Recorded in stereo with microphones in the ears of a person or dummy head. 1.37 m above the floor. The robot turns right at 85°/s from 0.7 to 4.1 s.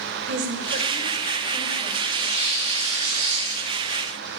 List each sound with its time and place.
0.3 s a woman speaking: 60° right, 1.4 m; by 1.9 s 45° left, 1.4 m
2.0 s tearing paper: 10° right (ahead or behind), 3 m; by 4.4 s 5° left (ahead or behind), 3 m